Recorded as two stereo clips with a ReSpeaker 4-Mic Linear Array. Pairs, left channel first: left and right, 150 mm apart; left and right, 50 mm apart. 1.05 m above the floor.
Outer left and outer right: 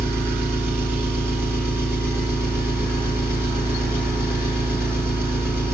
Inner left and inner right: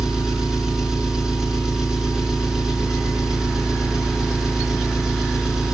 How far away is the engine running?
About 3.5 m.